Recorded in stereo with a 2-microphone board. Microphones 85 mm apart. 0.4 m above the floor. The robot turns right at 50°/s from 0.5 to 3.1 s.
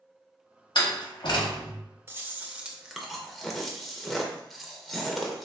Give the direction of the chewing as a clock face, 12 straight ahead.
2 o'clock.